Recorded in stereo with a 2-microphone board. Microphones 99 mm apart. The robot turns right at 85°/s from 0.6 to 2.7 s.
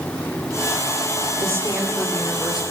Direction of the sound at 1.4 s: 50° right.